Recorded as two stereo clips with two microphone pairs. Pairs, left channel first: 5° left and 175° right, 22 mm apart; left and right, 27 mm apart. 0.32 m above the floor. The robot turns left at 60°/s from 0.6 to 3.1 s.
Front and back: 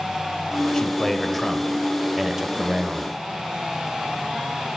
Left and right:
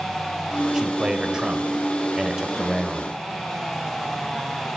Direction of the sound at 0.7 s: 35° right.